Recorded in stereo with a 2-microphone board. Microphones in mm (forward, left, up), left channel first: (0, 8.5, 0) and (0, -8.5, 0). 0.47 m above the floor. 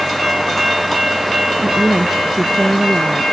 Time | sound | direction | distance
1.6 | a woman speaking | 35° right (ahead or behind) | ?